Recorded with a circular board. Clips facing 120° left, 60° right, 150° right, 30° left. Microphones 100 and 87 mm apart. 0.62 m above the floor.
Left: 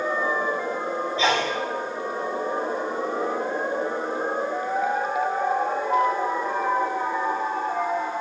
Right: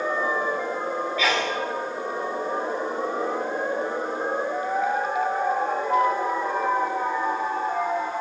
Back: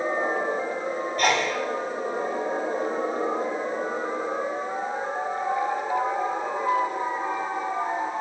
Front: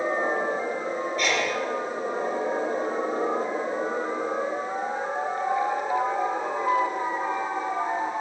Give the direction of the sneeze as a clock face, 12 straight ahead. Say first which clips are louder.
Left 3 dB, back 4 dB; 6 o'clock.